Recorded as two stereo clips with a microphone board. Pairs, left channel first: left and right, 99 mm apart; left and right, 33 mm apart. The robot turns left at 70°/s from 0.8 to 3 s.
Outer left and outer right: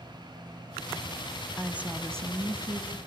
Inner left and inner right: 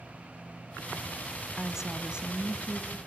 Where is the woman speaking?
10° right, 1.3 m; by 3.0 s 110° right, 1.3 m.